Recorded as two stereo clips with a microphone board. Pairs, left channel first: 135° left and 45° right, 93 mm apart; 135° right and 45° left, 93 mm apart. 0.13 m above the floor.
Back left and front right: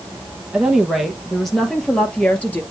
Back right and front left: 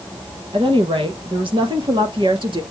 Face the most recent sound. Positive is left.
turn(degrees=65)